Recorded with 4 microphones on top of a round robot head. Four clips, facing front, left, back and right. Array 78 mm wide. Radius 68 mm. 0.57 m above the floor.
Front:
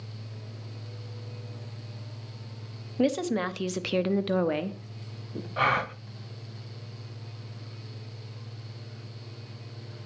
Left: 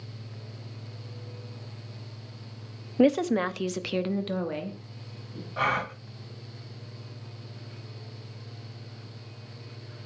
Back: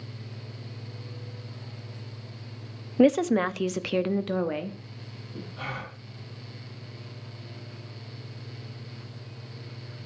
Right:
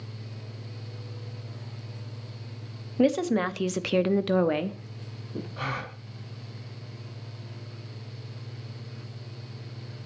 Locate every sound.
3.0 s a woman speaking: 155° left, 0.9 m; by 5.5 s 60° right, 1.4 m
5.6 s a gasp: 30° left, 1.4 m